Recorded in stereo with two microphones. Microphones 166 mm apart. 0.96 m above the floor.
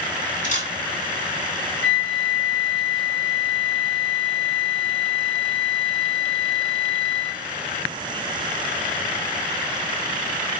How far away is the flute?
About 1.2 m.